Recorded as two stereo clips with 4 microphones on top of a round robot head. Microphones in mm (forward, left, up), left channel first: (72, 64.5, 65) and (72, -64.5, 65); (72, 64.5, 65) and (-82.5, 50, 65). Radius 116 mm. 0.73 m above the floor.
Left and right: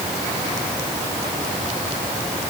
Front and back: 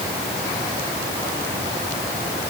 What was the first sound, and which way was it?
Only background noise.